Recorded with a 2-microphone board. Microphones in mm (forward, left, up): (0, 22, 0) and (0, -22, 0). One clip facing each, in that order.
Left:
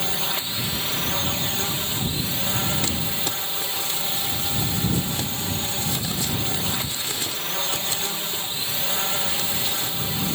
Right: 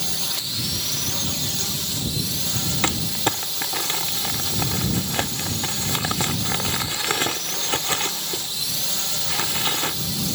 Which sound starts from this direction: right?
Crumpling, at 2.8 s.